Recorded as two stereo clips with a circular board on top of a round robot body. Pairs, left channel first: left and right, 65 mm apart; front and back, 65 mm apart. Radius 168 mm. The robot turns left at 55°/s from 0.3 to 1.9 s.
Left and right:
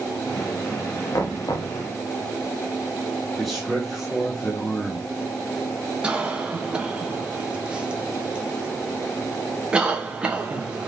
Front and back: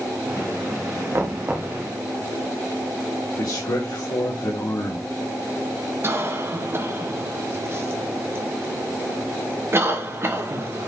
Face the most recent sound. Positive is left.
turn(degrees=-155)